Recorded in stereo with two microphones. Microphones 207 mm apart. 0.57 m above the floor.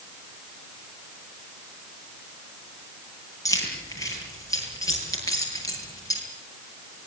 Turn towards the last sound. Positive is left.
turn(degrees=15)  # may be behind; listen again after turning